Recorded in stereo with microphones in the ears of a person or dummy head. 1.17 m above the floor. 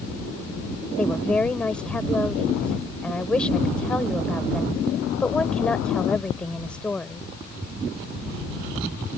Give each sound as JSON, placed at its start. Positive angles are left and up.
{"t": 1.0, "sound": "a woman speaking", "side_deg": 10}